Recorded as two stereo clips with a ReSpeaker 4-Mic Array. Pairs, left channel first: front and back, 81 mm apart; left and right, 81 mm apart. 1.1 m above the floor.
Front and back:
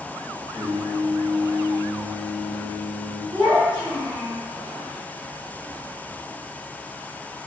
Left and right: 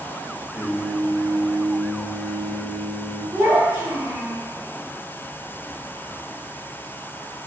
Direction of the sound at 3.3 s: 160° right.